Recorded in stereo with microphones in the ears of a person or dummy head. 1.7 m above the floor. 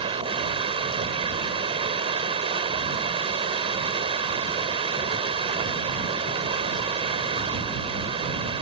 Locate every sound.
0.0 s running water: 35° right (ahead or behind)